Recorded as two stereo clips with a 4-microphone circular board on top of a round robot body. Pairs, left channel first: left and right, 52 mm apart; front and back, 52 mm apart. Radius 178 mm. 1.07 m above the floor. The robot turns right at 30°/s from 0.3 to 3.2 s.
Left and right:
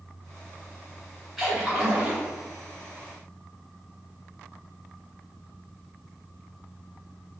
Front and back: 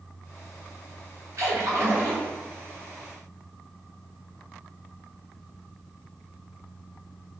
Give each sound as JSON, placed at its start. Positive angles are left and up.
{"t": 1.4, "sound": "a splash", "azimuth_deg": -175, "distance_m": 1.0}